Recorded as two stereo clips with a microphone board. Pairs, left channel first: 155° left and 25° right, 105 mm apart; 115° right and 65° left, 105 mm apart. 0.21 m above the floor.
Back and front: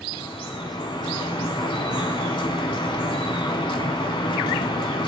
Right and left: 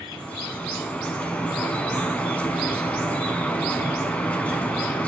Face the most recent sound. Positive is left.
turn(degrees=175)